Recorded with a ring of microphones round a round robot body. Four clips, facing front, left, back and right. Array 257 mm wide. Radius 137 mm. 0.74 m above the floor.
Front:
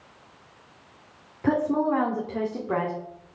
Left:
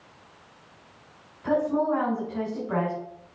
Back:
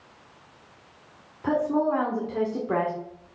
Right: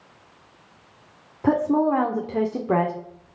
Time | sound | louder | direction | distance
1.4 | a woman speaking | right 4 dB, front 1 dB | 70° right | 2.0 m